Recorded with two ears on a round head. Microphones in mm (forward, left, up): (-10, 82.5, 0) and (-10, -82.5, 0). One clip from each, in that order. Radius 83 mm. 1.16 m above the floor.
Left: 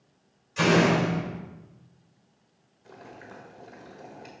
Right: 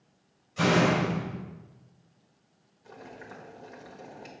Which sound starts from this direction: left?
A door slam, at 0.6 s.